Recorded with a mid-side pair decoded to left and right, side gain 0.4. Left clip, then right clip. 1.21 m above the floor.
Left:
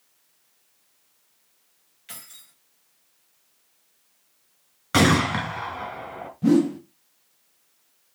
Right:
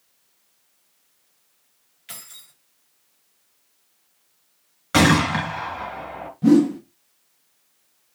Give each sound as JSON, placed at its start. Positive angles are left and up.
{"t": 2.1, "sound": "keys jangling", "azimuth_deg": -15, "distance_m": 4.5}
{"t": 4.9, "sound": "a gunshot", "azimuth_deg": -5, "distance_m": 5.0}
{"t": 6.4, "sound": "a whoosh", "azimuth_deg": -15, "distance_m": 1.7}